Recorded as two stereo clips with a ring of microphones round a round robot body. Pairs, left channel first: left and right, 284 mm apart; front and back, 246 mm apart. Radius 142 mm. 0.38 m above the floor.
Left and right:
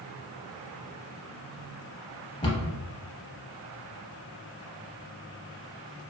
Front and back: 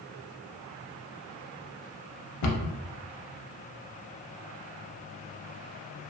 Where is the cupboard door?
15° left, 0.5 m.